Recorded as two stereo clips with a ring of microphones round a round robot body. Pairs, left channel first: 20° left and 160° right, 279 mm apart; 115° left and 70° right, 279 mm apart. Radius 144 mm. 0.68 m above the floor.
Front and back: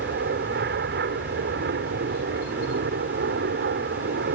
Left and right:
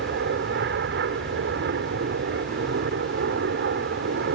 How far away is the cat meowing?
No cat meowing in this recording.